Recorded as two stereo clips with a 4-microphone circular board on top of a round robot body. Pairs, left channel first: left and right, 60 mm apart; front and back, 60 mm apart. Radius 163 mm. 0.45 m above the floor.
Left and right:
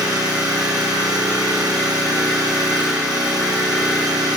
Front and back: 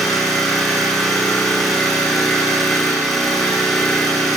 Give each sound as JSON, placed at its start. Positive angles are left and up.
{"t": 0.0, "sound": "an engine running", "azimuth_deg": -85, "distance_m": 4.5}